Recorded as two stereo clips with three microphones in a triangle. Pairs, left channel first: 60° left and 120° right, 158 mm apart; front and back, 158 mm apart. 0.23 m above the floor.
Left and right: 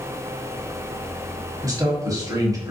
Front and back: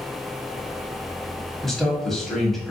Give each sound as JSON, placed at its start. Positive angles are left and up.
{"t": 1.6, "sound": "a man speaking", "azimuth_deg": -85, "distance_m": 1.0}